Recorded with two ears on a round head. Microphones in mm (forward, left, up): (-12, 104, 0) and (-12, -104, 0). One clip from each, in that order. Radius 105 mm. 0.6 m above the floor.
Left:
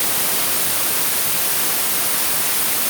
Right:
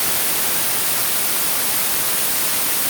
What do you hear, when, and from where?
Only background noise.